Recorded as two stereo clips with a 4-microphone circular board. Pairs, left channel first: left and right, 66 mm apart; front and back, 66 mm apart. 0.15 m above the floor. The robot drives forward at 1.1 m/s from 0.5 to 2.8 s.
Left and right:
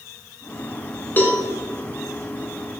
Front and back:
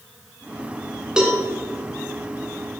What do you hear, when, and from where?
1.2 s a cowbell: 110° left, 1.6 m; by 1.4 s 125° left, 1.7 m